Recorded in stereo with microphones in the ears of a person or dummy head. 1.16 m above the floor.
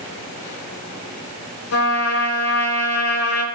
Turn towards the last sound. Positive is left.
turn(degrees=75)  # may be behind; listen again after turning